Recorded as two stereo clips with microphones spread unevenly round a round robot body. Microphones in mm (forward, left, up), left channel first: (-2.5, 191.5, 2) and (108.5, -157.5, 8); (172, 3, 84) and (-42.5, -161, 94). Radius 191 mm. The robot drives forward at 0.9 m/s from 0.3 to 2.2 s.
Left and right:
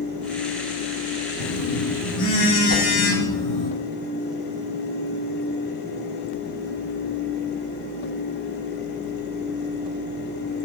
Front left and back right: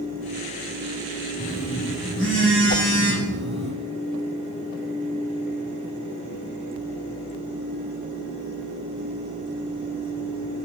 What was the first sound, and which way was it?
A phone buzzing, 115° left.